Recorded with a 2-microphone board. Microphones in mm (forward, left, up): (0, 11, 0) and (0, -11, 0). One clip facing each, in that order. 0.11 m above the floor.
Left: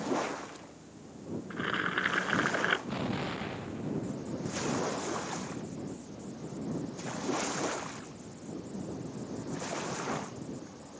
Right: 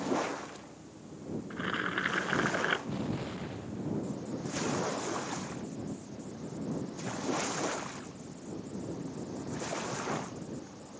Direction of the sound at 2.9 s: 40° left (ahead or behind).